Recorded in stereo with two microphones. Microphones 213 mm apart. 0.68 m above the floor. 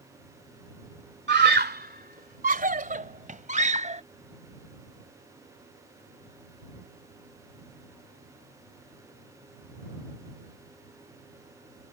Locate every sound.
1.3 s a scream: 50° right (ahead or behind); by 4.0 s 30° right (ahead or behind)